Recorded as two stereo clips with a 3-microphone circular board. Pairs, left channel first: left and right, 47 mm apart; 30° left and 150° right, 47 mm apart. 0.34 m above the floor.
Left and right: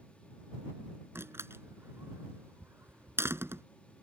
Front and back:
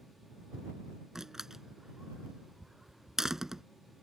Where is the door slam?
70° right.